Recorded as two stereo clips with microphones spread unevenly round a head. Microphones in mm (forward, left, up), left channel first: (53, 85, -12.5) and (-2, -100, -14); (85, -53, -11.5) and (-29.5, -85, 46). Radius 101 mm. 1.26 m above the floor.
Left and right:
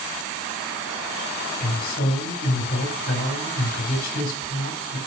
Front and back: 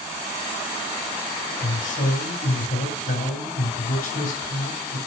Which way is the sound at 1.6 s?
30° left.